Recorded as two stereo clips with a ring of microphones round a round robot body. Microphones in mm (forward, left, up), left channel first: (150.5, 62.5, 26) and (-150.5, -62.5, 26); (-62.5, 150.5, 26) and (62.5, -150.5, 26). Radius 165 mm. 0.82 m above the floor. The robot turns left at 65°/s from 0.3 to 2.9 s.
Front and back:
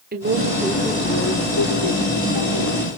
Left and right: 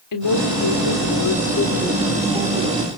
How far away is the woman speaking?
About 3 m.